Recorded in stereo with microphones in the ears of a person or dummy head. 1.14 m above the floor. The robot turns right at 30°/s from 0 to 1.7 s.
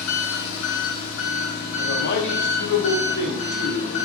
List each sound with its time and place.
0.0 s an engine running: 80° left, 0.7 m; by 4.0 s 130° left, 0.7 m
1.8 s a man speaking: 65° left (ahead or behind), 0.7 m